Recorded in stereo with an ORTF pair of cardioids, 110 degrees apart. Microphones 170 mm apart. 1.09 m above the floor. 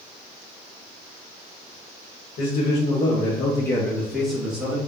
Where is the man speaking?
55° left, 1.5 m; by 4.8 s 10° right, 2 m.